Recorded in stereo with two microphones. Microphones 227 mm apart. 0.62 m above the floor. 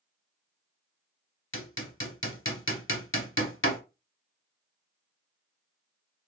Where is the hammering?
60° left (ahead or behind), 0.8 m.